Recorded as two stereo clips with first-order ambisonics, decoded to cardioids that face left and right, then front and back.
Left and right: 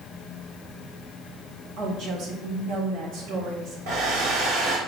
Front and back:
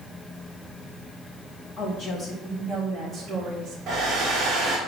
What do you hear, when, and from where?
1.8 s a woman speaking: 45° right, 1.7 m; by 3.8 s 120° right, 1.9 m
3.9 s a hair dryer: 115° right, 3 m